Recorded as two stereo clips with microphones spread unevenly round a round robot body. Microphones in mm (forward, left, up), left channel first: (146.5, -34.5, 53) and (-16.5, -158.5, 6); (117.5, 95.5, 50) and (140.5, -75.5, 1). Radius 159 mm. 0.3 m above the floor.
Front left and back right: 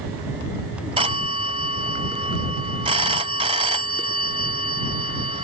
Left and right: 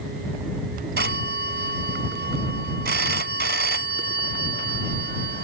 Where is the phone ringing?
85° right.